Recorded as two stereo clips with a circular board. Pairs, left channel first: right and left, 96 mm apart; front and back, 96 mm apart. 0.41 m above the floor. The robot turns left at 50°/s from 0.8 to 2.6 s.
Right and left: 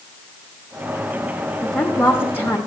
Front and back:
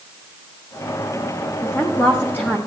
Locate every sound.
1.6 s a woman speaking: 15° right, 0.9 m; by 2.6 s 60° right, 0.9 m